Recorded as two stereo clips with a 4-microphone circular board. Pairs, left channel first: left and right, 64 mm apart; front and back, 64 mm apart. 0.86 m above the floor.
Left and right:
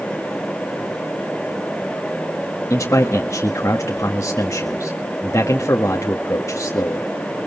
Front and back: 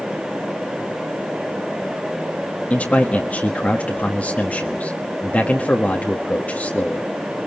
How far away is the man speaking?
About 1.5 m.